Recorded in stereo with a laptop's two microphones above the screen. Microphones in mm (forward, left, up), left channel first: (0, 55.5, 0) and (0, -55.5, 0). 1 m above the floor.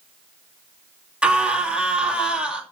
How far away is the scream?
About 2.5 m.